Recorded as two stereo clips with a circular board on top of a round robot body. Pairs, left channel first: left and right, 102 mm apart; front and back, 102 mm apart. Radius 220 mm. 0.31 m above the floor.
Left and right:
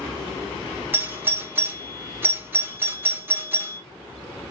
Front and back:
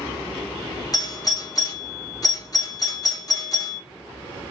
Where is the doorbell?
30° right, 1.6 m.